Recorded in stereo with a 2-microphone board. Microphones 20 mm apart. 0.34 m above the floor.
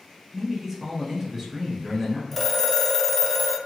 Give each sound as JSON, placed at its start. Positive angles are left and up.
{"t": 0.3, "sound": "a man speaking", "side_deg": -15, "distance_m": 1.0}
{"t": 2.3, "sound": "a phone ringing", "side_deg": 15, "distance_m": 0.6}